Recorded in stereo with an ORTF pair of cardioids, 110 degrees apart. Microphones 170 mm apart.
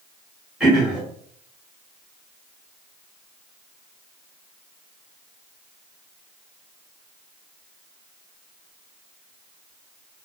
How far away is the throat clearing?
About 1.4 m.